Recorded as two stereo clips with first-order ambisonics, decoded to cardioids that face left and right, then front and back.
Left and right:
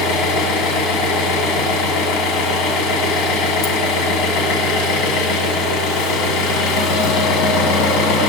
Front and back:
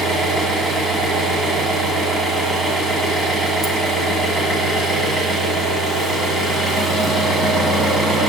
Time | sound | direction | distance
0.0 | an engine running | 100° left | 1.9 m